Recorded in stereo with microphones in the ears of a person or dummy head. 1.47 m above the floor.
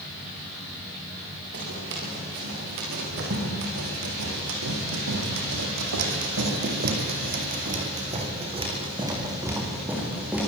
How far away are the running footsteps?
About 9 m.